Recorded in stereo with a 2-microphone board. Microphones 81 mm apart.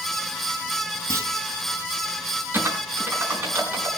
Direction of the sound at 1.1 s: 35° right (ahead or behind).